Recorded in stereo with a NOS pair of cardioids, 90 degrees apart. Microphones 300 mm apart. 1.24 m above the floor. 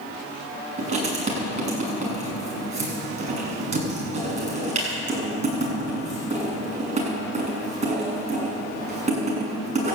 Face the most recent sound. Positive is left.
turn(degrees=-25)